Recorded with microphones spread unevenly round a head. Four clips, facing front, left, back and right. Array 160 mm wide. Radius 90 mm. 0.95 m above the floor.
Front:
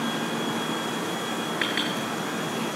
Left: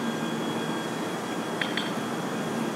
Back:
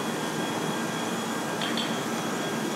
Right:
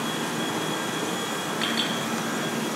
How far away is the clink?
About 8 m.